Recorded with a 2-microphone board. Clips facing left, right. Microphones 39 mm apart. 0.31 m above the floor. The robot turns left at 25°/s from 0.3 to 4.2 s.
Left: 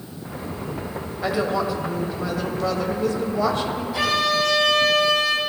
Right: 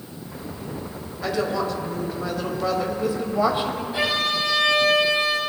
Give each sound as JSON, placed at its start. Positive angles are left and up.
{"t": 1.2, "sound": "a woman speaking", "azimuth_deg": 30, "distance_m": 1.2}
{"t": 3.9, "sound": "a violin", "side_deg": -35, "distance_m": 2.5}